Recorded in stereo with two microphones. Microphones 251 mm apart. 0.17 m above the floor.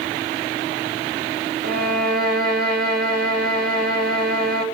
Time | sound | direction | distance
1.6 | a violin | 35° right (ahead or behind) | 3.5 m